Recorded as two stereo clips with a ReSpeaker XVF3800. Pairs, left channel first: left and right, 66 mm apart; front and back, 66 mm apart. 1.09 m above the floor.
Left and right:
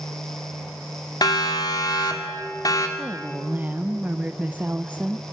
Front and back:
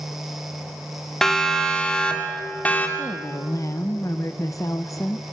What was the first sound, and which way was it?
A siren, 80° left.